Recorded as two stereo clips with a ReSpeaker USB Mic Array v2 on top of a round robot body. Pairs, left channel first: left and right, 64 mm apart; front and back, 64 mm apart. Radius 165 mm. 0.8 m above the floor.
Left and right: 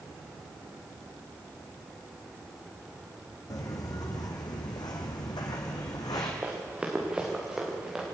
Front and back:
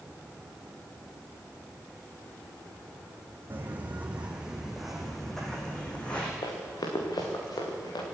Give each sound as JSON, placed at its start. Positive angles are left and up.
{"t": 3.5, "sound": "footsteps", "azimuth_deg": 120, "distance_m": 3.0}
{"t": 6.4, "sound": "running footsteps", "azimuth_deg": -15, "distance_m": 4.0}